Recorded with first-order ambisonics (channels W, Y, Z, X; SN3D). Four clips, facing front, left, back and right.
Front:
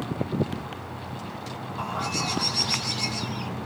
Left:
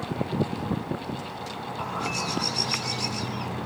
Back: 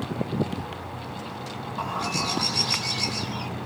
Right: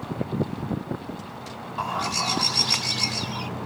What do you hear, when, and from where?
1.8 s a bird: 95° right, 1.4 m